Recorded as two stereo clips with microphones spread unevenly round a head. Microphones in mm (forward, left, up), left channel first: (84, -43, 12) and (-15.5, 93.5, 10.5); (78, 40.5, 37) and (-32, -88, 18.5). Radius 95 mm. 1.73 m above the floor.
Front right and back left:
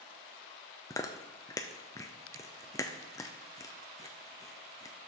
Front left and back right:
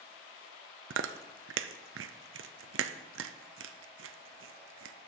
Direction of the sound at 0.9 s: 130° right.